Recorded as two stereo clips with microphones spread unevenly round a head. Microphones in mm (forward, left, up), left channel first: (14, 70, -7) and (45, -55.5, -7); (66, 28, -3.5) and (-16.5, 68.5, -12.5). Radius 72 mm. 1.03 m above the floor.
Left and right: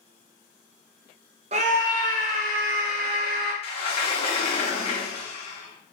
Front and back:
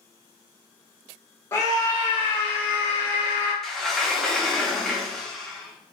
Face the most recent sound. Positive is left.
turn(degrees=60)